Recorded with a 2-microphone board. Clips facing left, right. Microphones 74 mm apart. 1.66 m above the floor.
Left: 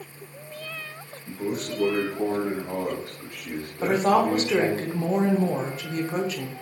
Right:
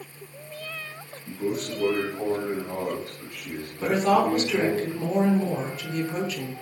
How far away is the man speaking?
About 1.0 m.